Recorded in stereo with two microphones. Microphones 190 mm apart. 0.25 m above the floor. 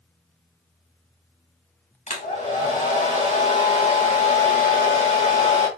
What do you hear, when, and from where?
2.1 s a hair dryer: 40° left (ahead or behind), 2.0 m